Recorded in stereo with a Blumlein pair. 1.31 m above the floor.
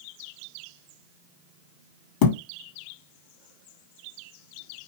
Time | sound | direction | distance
2.2 | a thud | 50° left | 1.8 m